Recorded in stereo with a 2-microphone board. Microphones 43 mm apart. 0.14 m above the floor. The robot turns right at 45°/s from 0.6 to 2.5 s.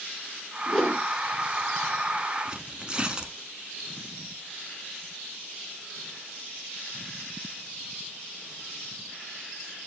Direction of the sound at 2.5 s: 20° right (ahead or behind).